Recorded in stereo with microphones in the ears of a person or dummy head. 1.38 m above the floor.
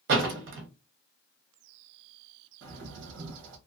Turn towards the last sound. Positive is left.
turn(degrees=-65)  # may be behind; listen again after turning